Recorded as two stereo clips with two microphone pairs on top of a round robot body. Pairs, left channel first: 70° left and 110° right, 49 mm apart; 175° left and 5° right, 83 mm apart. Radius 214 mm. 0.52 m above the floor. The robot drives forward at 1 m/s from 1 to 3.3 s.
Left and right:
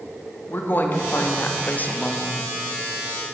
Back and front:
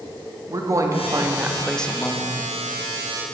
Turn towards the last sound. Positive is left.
turn(degrees=160)